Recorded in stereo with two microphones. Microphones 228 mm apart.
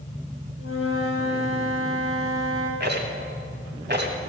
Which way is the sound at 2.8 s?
50° right (ahead or behind).